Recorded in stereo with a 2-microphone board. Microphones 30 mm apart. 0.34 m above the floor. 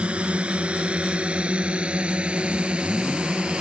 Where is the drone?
45° right (ahead or behind); by 3.6 s 40° right (ahead or behind).